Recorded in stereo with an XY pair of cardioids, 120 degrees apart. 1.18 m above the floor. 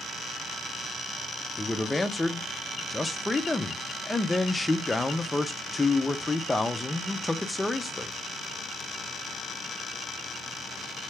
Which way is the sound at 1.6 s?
15° left.